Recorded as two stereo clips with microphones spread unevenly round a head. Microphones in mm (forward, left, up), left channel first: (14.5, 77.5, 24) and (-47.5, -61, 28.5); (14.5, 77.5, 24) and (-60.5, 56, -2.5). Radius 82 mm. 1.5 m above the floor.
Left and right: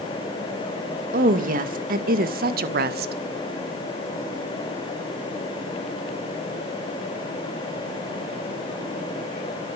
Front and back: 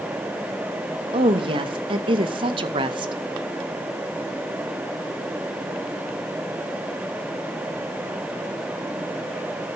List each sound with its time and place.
1.1 s a woman speaking: 150° right, 2.5 m; by 3.1 s 135° right, 1.6 m